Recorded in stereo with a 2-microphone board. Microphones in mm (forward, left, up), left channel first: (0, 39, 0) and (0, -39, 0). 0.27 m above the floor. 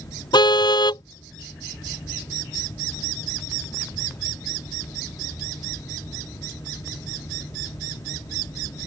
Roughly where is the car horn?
Left.